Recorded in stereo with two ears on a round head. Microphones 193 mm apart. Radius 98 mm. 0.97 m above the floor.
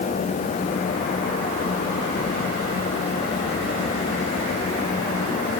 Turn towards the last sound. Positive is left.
No sound to turn to.